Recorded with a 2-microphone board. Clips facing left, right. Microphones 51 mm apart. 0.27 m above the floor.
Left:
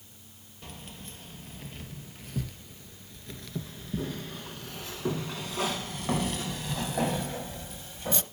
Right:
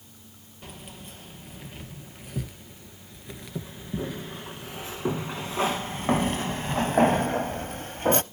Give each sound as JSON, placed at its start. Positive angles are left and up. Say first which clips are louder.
{"t": 0.6, "sound": "keys jangling", "louder": "right 2 dB", "side_deg": -10, "distance_m": 3.5}